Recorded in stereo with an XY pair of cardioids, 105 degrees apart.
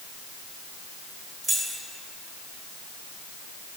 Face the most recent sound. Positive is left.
turn(degrees=-35)